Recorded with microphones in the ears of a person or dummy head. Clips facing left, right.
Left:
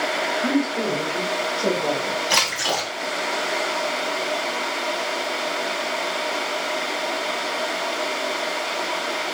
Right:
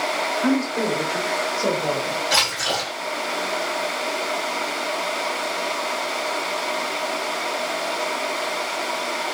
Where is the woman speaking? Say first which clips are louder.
Right 1 dB; 45° right (ahead or behind), 1.4 m; by 2.2 s 10° left (ahead or behind), 1.2 m.